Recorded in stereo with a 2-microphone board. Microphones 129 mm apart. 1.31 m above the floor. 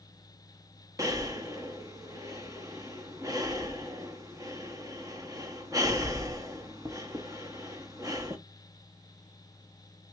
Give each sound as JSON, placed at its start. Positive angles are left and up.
{"t": 1.0, "sound": "breathing", "side_deg": -25, "distance_m": 0.8}